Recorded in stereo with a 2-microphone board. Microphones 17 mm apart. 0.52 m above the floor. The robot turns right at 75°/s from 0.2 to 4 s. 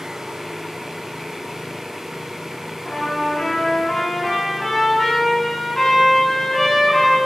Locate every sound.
2.9 s a trumpet: 60° left, 5 m; by 7.2 s 150° left, 5 m